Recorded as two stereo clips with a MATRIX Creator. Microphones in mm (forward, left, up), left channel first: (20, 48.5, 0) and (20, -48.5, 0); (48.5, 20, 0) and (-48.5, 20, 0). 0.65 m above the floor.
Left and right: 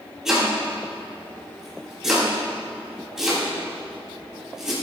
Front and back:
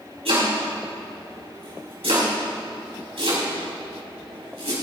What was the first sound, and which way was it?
Chopping, 175° right.